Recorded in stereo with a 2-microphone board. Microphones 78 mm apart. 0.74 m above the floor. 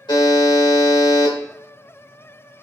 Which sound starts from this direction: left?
A buzzer, at 0.1 s.